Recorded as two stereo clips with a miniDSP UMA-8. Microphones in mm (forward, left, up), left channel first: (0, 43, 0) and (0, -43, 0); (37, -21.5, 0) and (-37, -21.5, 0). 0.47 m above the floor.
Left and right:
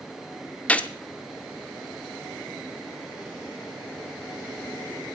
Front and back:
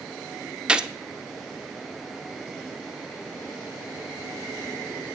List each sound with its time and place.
0.7 s a gunshot: 130° left, 0.6 m